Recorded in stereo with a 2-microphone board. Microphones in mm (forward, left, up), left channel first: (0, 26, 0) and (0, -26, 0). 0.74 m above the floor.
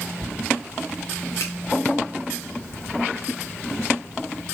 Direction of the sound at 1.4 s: 70° left (ahead or behind).